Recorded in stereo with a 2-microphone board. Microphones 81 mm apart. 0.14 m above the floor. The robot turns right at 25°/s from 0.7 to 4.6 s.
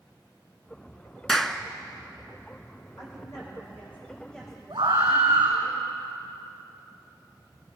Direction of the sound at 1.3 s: 5° left (ahead or behind).